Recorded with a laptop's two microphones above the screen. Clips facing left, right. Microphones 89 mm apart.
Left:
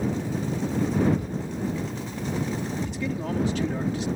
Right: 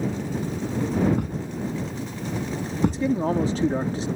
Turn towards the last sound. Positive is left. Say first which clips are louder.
# right 7 dB
turn(degrees=-35)  # may be behind; listen again after turning